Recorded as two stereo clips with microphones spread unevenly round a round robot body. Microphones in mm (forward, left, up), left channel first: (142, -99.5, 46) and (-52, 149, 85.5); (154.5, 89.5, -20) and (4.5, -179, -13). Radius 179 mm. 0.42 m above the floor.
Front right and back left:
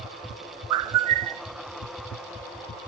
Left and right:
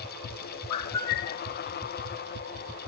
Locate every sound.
0.7 s a bird: 95° left, 0.7 m